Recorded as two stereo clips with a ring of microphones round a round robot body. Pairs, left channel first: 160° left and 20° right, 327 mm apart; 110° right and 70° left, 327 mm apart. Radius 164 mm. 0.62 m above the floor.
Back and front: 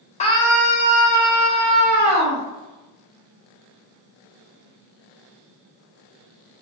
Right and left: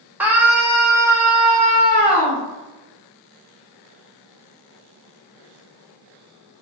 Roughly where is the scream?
Behind left.